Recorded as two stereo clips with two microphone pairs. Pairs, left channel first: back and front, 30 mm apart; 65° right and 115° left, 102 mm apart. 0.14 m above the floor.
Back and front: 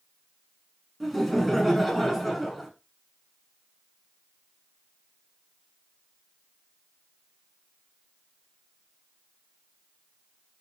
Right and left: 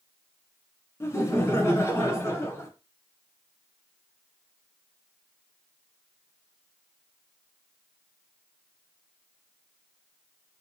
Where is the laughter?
85° right, 1.2 m.